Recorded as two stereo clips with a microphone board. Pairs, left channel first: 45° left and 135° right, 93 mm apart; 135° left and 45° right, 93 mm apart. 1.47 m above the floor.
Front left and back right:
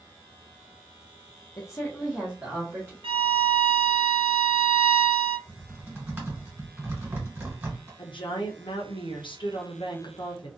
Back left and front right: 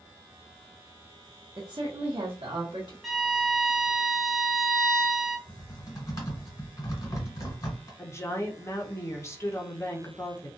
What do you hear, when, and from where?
1.6 s a woman speaking: straight ahead, 0.6 m; by 2.9 s 75° right, 1.1 m
3.0 s a violin: 130° right, 0.5 m
5.5 s typing on a keyboard: 165° left, 1.5 m
8.0 s a woman speaking: 75° left, 0.7 m